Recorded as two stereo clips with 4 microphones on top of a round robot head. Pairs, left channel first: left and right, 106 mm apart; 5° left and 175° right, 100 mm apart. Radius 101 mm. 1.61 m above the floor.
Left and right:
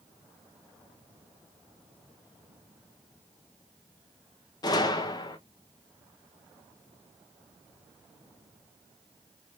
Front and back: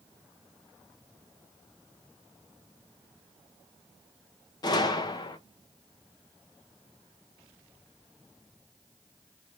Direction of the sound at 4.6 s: 45° left.